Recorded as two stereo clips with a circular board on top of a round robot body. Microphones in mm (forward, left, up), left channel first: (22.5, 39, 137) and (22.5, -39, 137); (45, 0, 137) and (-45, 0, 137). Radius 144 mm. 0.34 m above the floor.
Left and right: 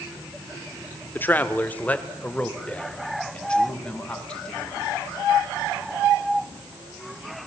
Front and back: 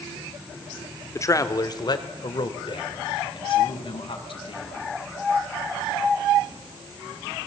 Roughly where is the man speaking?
Ahead left.